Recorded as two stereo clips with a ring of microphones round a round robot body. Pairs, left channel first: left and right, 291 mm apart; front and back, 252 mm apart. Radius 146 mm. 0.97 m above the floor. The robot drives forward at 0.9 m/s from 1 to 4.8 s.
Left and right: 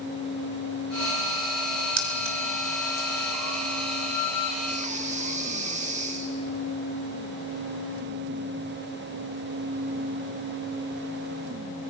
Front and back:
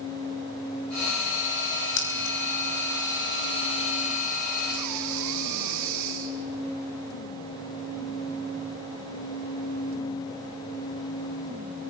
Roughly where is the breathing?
Behind right.